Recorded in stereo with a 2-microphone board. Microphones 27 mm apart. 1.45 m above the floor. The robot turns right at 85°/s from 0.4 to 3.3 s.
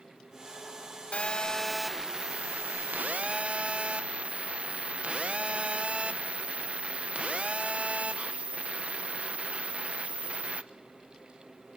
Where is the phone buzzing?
125° left, 0.9 m; by 10.6 s 50° right, 0.9 m.